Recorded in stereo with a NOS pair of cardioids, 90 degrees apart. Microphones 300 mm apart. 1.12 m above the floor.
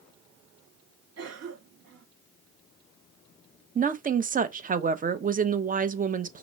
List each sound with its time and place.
1.2 s a cough: 55° right, 1.9 m
3.8 s a woman speaking: 25° right, 0.7 m